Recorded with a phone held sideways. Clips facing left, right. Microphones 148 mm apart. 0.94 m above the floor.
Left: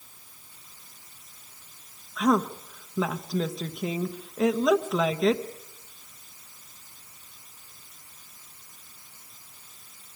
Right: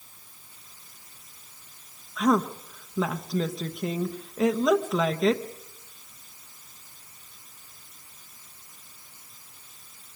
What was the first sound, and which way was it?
A woman speaking, centre (ahead or behind).